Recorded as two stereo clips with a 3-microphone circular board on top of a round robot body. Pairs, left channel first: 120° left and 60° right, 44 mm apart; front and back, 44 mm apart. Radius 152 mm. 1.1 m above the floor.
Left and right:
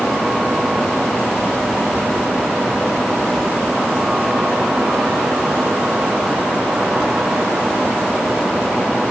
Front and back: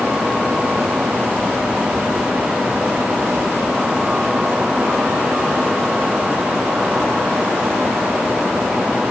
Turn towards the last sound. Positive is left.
No sound to turn to.